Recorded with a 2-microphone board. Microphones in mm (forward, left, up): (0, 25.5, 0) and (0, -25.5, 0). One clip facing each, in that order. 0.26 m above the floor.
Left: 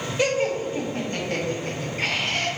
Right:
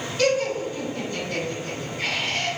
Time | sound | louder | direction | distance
0.2 | laughter | right 1 dB | 20° left (ahead or behind) | 1.0 m